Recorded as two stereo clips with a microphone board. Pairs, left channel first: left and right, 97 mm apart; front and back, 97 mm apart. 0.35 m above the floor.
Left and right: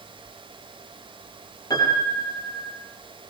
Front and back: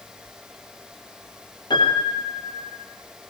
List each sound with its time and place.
1.7 s a piano: 40° left, 8.5 m